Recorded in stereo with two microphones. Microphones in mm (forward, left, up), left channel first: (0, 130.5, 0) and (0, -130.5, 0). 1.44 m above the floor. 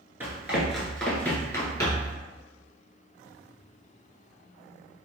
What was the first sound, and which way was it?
Running footsteps, 10° right (ahead or behind).